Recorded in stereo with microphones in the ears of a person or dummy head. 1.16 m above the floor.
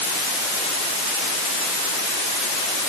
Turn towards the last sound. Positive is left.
No sound to turn to.